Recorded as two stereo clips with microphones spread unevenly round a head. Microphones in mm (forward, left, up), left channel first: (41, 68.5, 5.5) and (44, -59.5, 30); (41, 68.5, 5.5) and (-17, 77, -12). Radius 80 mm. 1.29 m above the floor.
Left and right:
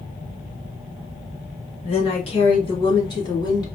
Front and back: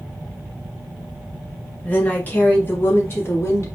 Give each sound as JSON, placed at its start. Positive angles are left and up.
{"t": 1.8, "sound": "a woman speaking", "azimuth_deg": 55, "distance_m": 2.5}